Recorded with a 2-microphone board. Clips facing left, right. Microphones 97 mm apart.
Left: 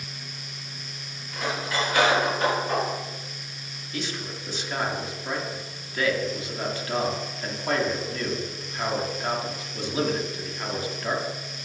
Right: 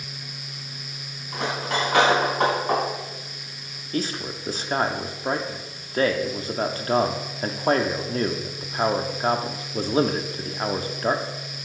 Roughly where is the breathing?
I don't hear breathing.